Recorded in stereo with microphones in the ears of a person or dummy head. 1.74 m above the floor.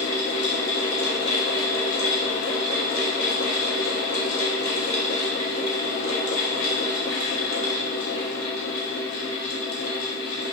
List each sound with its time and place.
0.0 s a fan: 80° left, 0.8 m